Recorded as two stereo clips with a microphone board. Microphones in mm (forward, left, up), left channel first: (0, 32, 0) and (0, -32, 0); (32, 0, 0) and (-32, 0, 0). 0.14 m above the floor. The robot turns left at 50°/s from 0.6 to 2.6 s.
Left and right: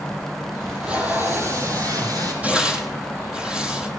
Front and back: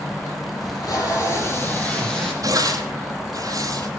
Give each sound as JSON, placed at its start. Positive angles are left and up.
{"t": 0.6, "sound": "tape being pulled", "azimuth_deg": -5, "distance_m": 4.5}
{"t": 2.4, "sound": "tearing paper", "azimuth_deg": -155, "distance_m": 2.0}